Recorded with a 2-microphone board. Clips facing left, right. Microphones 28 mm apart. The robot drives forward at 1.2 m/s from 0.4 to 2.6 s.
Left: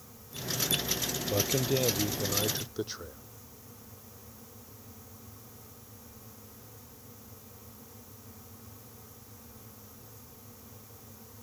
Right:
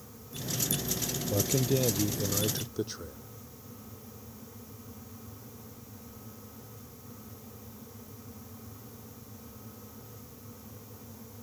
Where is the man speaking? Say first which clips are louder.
Even; 15° left (ahead or behind); by 3.2 s 10° left (ahead or behind).